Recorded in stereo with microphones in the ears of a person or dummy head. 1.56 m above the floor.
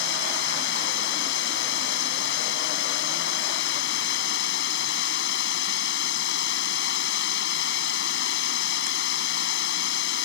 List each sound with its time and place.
0.0 s running water: 75° left (ahead or behind)